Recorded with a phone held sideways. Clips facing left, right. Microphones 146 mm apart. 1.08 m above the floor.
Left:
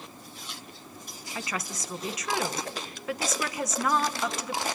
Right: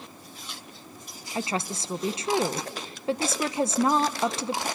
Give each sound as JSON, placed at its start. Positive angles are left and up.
{"t": 1.4, "sound": "a woman speaking", "side_deg": -30, "distance_m": 0.8}